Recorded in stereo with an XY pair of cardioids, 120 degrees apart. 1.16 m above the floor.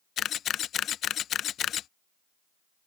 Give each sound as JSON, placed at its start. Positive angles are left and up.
{"t": 0.2, "sound": "a camera shutter", "azimuth_deg": 55}